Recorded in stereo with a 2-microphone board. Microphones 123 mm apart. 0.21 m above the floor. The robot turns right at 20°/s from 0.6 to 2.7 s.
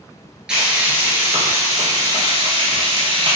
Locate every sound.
0.5 s frying: 170° right, 1.5 m; by 3.4 s 130° right, 1.5 m